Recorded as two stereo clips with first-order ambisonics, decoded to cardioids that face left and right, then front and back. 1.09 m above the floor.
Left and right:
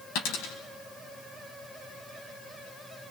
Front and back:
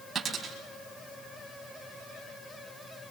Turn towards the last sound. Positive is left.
turn(degrees=110)